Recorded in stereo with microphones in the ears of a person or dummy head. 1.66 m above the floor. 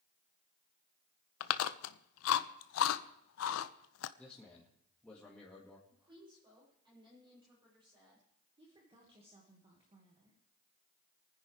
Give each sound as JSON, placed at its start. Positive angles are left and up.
{"t": 1.4, "sound": "chewing", "side_deg": 75, "distance_m": 0.7}
{"t": 4.2, "sound": "a man speaking", "side_deg": 5, "distance_m": 2.0}
{"t": 5.9, "sound": "a woman speaking", "side_deg": -25, "distance_m": 8.0}
{"t": 8.6, "sound": "a woman speaking", "side_deg": -25, "distance_m": 2.0}